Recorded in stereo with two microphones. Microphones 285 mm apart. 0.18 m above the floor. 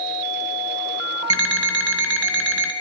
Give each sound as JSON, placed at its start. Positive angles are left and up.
{"t": 1.3, "sound": "an alarm clock", "side_deg": 65, "distance_m": 1.0}